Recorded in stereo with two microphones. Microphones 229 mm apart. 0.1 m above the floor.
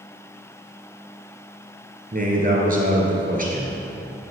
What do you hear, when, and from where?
2.1 s a man speaking: 40° right (ahead or behind), 1.7 m